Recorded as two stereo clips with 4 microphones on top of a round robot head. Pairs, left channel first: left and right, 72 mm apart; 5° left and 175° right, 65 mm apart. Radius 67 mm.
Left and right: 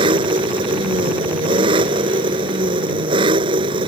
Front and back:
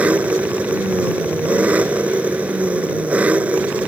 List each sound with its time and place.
0.0 s an engine running: 100° right